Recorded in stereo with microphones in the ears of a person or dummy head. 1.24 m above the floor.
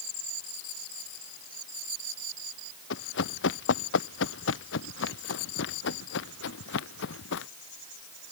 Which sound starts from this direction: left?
Running footsteps, at 2.9 s.